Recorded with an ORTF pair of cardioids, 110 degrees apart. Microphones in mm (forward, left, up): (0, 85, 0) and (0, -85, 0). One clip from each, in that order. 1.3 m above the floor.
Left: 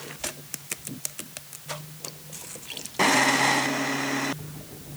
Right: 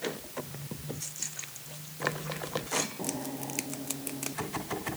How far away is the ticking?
No ticking in this recording.